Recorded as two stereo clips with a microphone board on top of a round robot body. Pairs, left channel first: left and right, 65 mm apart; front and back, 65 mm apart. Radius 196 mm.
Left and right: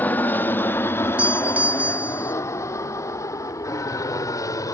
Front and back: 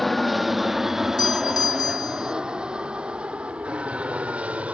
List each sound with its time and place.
0.0 s an aircraft: 85° left; by 4.7 s 110° left
1.2 s a doorbell: 20° right